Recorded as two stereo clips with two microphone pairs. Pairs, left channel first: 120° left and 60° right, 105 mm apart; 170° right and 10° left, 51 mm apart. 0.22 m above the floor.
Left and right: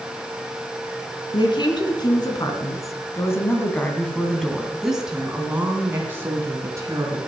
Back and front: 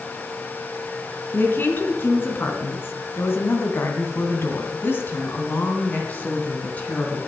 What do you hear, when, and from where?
1.3 s a woman speaking: 150° left, 2.5 m; by 7.2 s 110° right, 2.5 m